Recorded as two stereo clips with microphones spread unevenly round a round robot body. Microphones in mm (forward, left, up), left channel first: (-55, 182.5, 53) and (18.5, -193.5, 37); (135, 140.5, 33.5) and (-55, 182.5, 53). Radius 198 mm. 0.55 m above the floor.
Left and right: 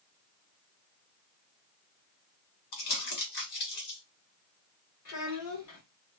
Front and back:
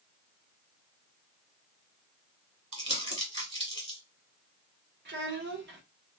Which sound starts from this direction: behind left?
A child speaking, at 5.0 s.